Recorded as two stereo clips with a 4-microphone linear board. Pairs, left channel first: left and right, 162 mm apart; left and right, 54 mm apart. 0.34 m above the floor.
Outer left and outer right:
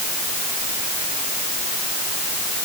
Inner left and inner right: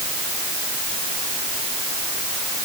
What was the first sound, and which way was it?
Only background noise.